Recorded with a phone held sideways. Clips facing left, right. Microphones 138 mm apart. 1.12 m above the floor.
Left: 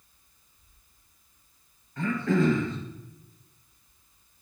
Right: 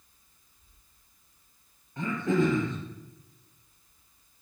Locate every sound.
2.0 s throat clearing: 20° right (ahead or behind), 3 m